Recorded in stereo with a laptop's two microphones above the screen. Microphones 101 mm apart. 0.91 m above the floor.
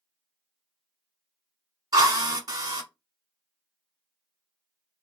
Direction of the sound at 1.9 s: 40° right (ahead or behind).